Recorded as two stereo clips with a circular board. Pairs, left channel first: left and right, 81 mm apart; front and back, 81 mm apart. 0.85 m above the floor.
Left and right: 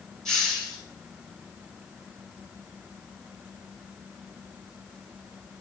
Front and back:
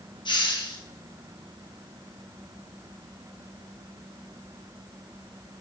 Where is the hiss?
5° left, 1.8 m.